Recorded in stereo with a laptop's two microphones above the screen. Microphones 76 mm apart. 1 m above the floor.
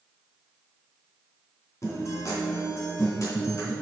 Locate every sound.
1.8 s a guitar: 45° left (ahead or behind), 2.5 m